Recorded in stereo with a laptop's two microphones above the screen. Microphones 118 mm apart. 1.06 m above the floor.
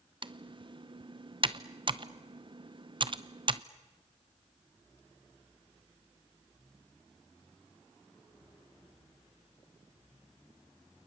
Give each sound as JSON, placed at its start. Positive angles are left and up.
{"t": 0.2, "sound": "typing on a keyboard", "side_deg": -45, "distance_m": 0.8}